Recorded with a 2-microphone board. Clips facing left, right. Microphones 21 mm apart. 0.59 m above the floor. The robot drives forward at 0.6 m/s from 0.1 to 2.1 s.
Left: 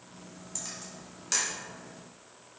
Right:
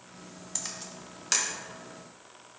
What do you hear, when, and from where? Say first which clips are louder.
0.6 s a camera shutter: right 3 dB; 40° right (ahead or behind), 1.1 m; by 1.5 s 25° right (ahead or behind), 1.5 m